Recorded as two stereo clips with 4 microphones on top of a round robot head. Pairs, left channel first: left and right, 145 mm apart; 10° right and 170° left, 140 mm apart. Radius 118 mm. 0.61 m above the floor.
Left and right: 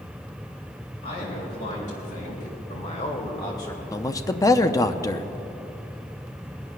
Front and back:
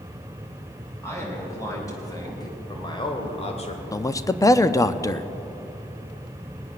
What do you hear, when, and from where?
1.0 s a man speaking: 60° left, 5 m; by 3.8 s 20° left, 1.9 m
3.9 s a man speaking: 40° left, 0.7 m